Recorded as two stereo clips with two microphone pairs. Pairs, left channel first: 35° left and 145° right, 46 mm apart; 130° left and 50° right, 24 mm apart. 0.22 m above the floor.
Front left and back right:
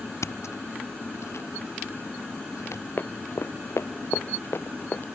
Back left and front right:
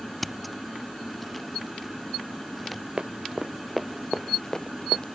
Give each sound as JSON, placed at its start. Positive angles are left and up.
{"t": 0.2, "sound": "scissors", "azimuth_deg": 45}
{"t": 3.0, "sound": "running footsteps", "azimuth_deg": 0}